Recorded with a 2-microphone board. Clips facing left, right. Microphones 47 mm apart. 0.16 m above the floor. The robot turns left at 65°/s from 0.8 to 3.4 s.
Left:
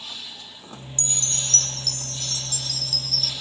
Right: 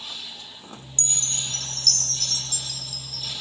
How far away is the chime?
About 1.6 m.